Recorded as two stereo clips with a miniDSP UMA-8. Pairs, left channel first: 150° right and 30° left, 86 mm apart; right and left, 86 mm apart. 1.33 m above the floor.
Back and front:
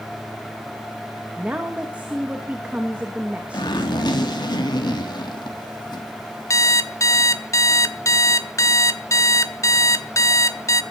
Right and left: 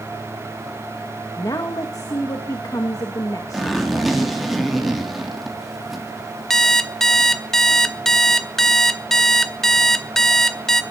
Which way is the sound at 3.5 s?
175° left.